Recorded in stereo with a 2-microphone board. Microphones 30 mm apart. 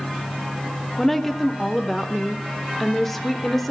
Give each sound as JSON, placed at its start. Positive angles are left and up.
{"t": 1.0, "sound": "a woman speaking", "side_deg": 10, "distance_m": 0.8}